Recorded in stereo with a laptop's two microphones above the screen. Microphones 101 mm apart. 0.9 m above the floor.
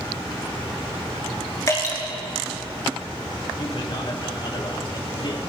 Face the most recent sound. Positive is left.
turn(degrees=55)  # may be behind; listen again after turning